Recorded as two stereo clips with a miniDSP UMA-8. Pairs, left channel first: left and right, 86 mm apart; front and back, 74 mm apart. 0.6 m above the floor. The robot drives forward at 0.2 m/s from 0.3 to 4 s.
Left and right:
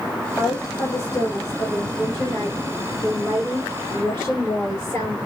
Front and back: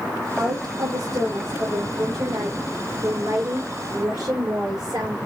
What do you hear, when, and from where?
0.4 s a woman speaking: 160° left, 2 m; by 5.2 s 165° left, 3 m